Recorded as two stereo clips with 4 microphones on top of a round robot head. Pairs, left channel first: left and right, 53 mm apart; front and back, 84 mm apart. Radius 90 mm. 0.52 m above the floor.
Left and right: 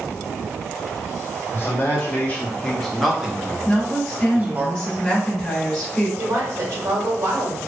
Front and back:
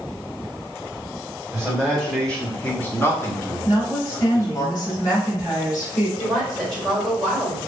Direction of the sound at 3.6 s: 15° left.